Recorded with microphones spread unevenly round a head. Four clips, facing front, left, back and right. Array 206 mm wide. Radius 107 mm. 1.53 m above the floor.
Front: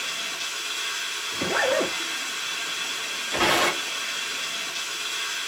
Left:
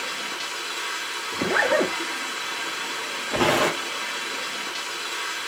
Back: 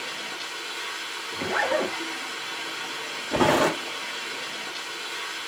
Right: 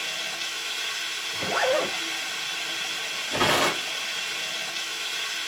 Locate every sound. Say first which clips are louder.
0.0 s running water: left 4 dB, even; 95° left, 2.5 m
1.3 s a zipper: left 3 dB, front 1 dB; 85° left, 2 m
3.3 s tearing paper: left 2 dB, back 3 dB; 160° left, 0.8 m